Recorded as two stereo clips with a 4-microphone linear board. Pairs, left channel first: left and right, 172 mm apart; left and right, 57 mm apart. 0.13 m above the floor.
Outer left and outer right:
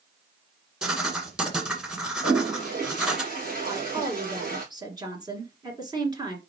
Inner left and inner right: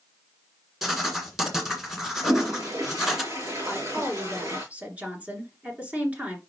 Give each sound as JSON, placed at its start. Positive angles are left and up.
{"t": 0.8, "sound": "writing", "side_deg": -5, "distance_m": 1.8}
{"t": 2.2, "sound": "a toilet flushing", "side_deg": -55, "distance_m": 3.5}
{"t": 3.7, "sound": "a woman speaking", "side_deg": -25, "distance_m": 2.0}